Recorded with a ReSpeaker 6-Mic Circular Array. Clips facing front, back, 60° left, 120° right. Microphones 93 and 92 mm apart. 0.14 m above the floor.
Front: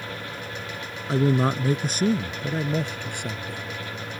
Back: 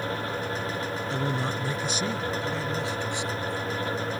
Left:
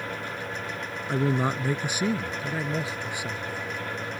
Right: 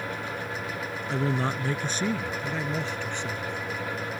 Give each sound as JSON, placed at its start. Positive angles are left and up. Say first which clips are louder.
{"t": 1.1, "sound": "a man speaking", "louder": "front 10 dB, left 3 dB", "azimuth_deg": -5}